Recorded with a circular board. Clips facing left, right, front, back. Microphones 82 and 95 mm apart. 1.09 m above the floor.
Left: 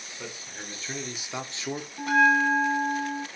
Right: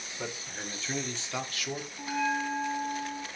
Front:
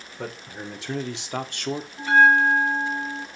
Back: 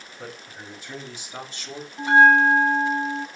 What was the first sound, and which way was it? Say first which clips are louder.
A man speaking: right 2 dB, front 5 dB; 10° right.